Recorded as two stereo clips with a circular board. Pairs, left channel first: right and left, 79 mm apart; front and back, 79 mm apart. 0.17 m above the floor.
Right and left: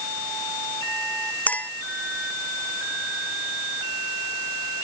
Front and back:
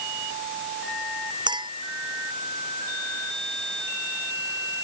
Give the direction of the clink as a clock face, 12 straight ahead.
5 o'clock.